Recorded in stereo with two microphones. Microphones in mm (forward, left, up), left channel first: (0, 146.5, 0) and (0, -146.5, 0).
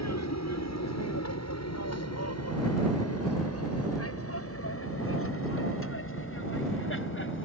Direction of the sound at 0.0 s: 65° left (ahead or behind).